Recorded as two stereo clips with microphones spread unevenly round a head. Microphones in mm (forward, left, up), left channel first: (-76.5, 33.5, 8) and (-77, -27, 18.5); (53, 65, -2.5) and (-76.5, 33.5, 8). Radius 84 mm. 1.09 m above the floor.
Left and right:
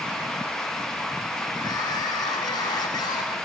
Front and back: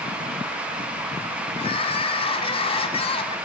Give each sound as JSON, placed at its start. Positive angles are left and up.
{"t": 1.6, "sound": "crying", "azimuth_deg": 60, "distance_m": 1.9}